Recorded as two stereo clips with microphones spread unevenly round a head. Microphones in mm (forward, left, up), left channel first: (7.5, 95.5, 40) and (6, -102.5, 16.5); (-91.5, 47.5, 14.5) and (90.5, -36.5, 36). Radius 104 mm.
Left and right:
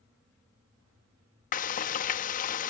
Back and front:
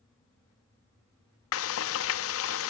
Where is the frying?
145° left, 1.1 m.